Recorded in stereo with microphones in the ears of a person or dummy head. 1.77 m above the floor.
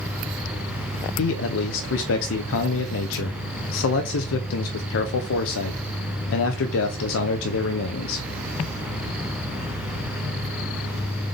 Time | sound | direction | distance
1.2 | a man speaking | 70° left (ahead or behind) | 0.6 m